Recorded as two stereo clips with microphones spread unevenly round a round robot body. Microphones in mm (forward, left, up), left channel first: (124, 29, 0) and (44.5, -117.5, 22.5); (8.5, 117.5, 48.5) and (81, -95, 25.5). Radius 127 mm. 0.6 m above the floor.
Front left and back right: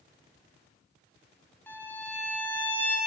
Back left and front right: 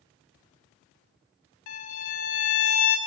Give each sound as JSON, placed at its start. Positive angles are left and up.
{"t": 1.7, "sound": "a violin", "azimuth_deg": 145, "distance_m": 1.0}